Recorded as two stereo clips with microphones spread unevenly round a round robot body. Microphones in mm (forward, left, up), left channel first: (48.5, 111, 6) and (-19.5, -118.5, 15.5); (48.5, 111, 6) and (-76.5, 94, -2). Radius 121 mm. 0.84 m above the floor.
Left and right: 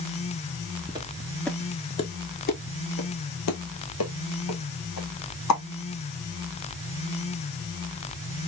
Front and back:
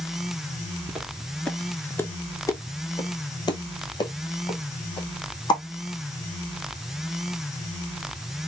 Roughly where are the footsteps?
Right.